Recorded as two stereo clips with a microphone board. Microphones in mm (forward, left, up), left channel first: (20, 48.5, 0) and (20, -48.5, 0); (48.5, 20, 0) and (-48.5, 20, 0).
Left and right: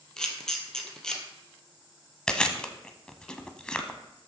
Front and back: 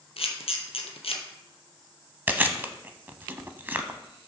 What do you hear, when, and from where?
0.2 s a camera shutter: 5° left, 1.7 m
2.3 s chewing: 155° left, 0.8 m